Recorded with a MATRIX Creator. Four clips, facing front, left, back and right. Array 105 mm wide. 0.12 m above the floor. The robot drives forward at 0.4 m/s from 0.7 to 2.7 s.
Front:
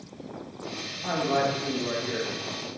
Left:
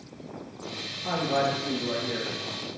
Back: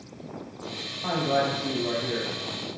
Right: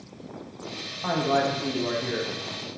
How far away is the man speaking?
About 7 m.